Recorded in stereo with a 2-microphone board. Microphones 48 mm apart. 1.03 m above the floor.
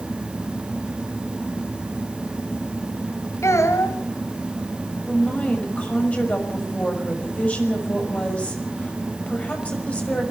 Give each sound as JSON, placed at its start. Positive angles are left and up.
{"t": 3.4, "sound": "a child speaking", "side_deg": 85, "distance_m": 3.5}
{"t": 5.1, "sound": "a woman speaking", "side_deg": 30, "distance_m": 6.0}